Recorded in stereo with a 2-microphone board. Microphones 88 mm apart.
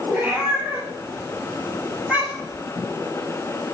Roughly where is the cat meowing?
Right.